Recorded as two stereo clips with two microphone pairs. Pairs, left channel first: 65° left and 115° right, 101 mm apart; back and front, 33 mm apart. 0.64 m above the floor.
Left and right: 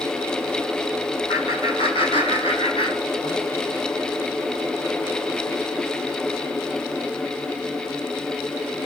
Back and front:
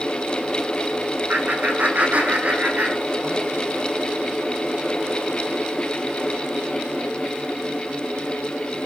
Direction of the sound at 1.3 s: 35° left.